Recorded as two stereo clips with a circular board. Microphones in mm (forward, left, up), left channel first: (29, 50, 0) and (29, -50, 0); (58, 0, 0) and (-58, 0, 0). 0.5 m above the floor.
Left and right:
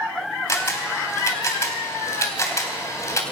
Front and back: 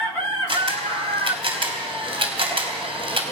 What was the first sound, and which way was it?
A camera shutter, 150° left.